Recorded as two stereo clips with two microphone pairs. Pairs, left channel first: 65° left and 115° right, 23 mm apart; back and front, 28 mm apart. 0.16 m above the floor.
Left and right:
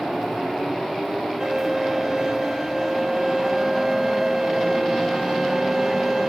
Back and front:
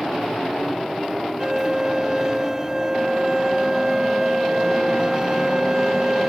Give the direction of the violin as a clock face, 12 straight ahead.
2 o'clock.